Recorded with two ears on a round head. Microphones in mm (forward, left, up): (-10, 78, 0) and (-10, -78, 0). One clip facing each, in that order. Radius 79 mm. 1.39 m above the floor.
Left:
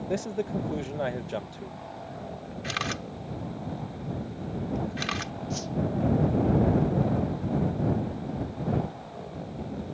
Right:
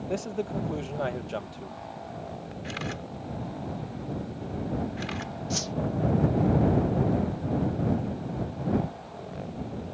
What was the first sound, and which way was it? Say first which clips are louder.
A man speaking: left 1 dB; 10° left (ahead or behind).